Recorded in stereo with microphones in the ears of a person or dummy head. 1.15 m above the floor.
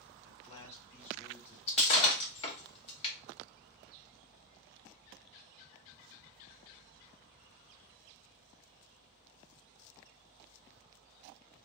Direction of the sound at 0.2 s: 35° left (ahead or behind).